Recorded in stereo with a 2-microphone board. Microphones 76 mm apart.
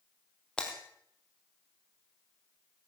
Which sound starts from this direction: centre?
Breaking glass, at 0.6 s.